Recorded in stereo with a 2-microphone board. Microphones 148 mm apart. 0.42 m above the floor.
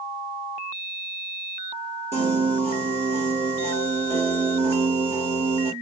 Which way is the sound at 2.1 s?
45° right (ahead or behind).